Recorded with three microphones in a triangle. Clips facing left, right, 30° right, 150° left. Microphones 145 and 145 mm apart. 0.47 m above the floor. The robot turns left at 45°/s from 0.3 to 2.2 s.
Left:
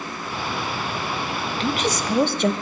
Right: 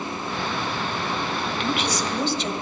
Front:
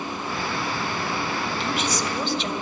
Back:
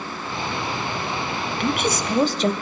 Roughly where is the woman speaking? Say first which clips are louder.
Left 3 dB, back 7 dB; behind left.